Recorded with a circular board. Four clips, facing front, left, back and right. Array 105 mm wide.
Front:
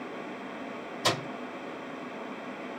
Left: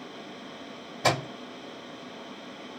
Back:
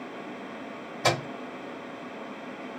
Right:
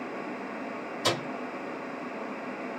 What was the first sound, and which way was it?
A microwave, 135° left.